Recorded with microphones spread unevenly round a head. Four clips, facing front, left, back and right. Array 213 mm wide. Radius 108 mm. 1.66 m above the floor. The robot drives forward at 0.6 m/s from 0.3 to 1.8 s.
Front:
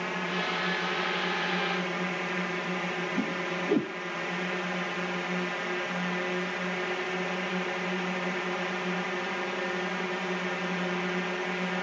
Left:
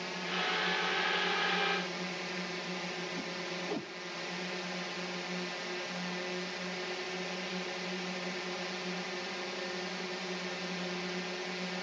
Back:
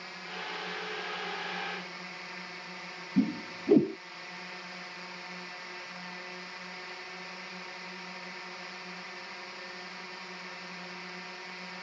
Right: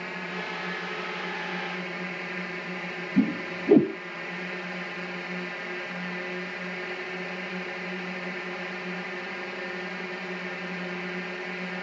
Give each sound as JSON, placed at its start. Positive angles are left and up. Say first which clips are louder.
{"t": 0.0, "sound": "a drone", "louder": "right 2 dB, front 11 dB", "azimuth_deg": -15}
{"t": 3.2, "sound": "a whoosh", "louder": "right 13 dB, back 6 dB", "azimuth_deg": -110}